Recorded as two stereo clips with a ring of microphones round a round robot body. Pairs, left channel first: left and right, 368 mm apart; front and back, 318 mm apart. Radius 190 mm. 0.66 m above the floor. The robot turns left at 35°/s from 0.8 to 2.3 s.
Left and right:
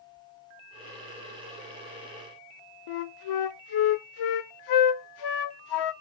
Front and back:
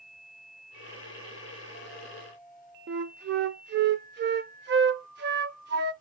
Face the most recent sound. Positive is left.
turn(degrees=120)